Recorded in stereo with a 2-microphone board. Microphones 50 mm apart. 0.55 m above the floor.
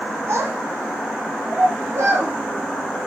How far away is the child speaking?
About 6.5 m.